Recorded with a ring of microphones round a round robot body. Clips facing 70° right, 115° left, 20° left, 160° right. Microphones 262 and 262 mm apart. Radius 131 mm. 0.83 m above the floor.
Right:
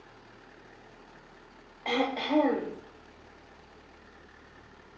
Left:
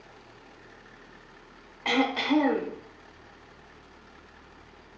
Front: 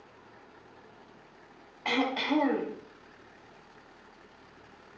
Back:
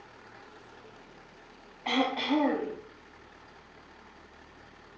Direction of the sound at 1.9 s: 45° left.